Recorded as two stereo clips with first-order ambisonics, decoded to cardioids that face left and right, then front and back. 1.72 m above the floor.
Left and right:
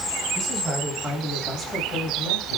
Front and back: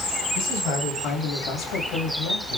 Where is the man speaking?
20° right, 1.6 m; by 2.6 s 40° left, 1.3 m.